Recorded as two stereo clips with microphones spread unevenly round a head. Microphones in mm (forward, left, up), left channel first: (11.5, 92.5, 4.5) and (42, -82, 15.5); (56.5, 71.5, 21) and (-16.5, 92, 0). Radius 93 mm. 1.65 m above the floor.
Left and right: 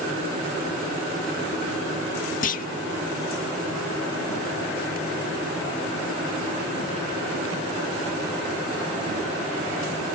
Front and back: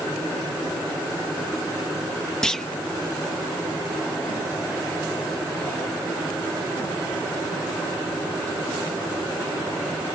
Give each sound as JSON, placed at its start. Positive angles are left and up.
{"t": 2.4, "sound": "a clunk", "azimuth_deg": 60}